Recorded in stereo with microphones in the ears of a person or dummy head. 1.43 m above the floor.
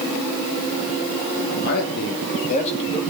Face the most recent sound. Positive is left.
turn(degrees=30)  # may be behind; listen again after turning